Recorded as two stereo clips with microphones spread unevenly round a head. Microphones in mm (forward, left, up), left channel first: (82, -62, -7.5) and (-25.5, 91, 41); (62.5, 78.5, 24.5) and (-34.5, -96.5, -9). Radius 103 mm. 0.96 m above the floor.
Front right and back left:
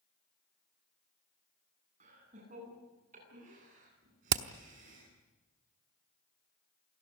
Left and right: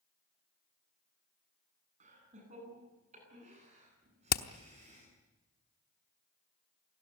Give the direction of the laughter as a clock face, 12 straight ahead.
6 o'clock.